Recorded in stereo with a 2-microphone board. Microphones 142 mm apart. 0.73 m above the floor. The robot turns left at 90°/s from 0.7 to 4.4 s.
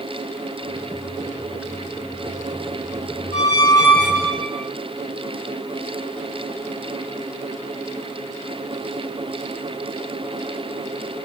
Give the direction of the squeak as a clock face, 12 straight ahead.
10 o'clock.